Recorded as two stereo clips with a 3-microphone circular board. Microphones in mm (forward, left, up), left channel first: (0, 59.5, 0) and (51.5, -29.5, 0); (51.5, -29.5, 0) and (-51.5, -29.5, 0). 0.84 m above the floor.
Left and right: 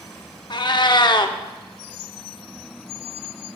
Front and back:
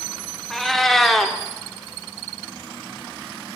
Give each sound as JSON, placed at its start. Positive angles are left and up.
{"t": 0.5, "sound": "a cat meowing", "azimuth_deg": 90, "distance_m": 0.6}